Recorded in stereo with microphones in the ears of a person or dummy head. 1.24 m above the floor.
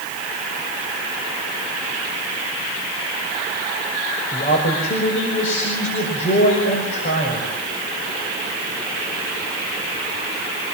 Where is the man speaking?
50° left (ahead or behind), 5.5 m.